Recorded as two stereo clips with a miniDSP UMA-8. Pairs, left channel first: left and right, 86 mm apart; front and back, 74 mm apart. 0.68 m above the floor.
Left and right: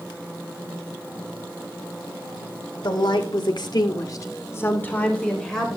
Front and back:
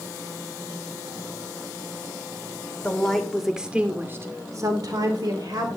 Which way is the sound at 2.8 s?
75° left.